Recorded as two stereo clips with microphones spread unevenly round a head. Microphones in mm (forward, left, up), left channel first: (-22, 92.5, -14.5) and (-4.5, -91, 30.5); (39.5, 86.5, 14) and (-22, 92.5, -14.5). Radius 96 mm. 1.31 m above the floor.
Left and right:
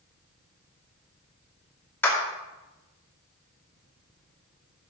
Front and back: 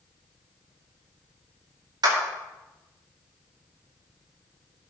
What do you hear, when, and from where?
2.0 s a clap: 175° left, 2.5 m